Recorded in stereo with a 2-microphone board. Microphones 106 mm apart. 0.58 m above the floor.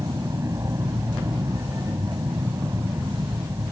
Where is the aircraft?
30° right (ahead or behind).